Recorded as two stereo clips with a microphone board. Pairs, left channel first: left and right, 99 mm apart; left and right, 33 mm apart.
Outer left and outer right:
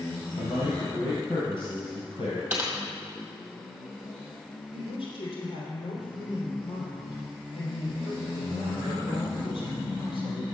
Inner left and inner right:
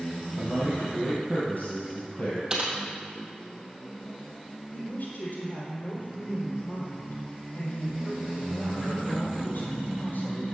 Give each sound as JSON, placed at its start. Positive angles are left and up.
{"t": 0.4, "sound": "a man speaking", "side_deg": 60, "distance_m": 2.0}
{"t": 2.5, "sound": "typing on a keyboard", "side_deg": -20, "distance_m": 2.0}
{"t": 4.7, "sound": "a woman speaking", "side_deg": 65, "distance_m": 3.5}